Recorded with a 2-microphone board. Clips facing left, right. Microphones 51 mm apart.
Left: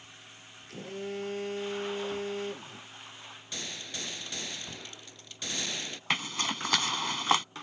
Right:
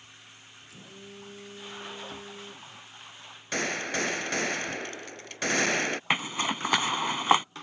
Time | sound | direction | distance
0.7 | a phone buzzing | 60° left (ahead or behind) | ?
3.5 | a gunshot | 65° right (ahead or behind) | ?
6.1 | a zipper | 20° right (ahead or behind) | ?